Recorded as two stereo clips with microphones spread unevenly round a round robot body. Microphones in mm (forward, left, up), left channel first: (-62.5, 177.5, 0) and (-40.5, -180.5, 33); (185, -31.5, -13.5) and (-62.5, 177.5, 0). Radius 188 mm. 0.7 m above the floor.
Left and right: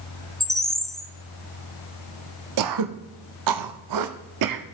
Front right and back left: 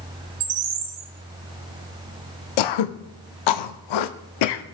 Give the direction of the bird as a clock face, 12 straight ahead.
6 o'clock.